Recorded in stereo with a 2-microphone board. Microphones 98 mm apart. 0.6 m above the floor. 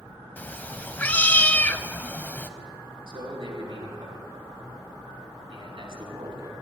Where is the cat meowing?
15° left (ahead or behind), 0.7 m.